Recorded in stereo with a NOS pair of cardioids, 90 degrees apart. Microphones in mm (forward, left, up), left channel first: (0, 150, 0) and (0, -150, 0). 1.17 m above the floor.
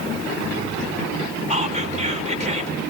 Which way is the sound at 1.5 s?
25° right.